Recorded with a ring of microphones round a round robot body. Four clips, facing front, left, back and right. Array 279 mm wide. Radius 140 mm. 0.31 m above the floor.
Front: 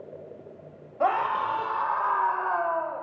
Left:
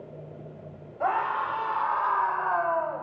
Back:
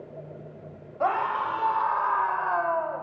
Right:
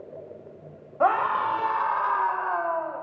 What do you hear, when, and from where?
1.0 s a scream: 70° right, 1.8 m; by 3.0 s 130° left, 1.4 m